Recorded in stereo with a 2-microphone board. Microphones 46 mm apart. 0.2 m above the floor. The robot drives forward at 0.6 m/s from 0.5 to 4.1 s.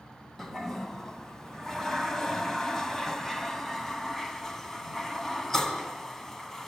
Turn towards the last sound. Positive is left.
turn(degrees=5)  # may be behind; listen again after turning